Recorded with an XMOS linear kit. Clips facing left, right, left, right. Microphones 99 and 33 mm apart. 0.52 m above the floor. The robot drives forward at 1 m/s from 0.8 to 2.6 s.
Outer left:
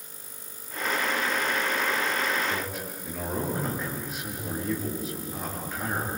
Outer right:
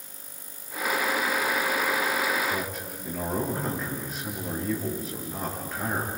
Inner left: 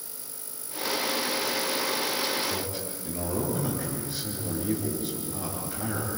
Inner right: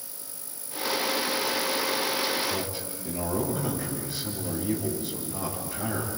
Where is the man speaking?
Centre (ahead or behind), 7.5 m.